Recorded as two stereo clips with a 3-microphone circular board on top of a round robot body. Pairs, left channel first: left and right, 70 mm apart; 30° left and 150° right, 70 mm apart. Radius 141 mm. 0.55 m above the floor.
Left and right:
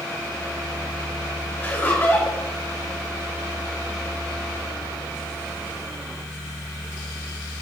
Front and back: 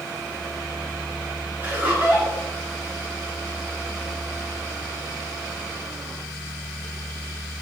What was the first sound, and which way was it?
Laughter, 150° left.